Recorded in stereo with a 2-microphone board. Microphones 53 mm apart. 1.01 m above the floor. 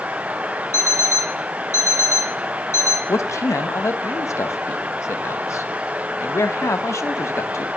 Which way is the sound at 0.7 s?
65° left (ahead or behind).